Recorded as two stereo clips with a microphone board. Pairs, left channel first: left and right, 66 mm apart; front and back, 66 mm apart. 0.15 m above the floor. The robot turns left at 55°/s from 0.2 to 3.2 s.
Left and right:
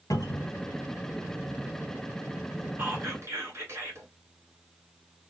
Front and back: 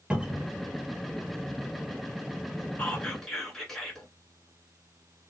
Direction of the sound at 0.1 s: 105° left.